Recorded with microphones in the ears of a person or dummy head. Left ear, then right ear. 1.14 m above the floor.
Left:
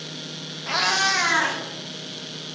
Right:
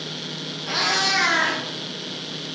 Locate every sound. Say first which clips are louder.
0.7 s a cat meowing: even; 30° left (ahead or behind), 0.7 m; by 2.5 s 65° left (ahead or behind), 2.5 m